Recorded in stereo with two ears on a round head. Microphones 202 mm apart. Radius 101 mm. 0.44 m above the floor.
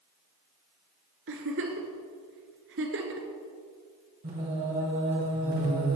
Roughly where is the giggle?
Right.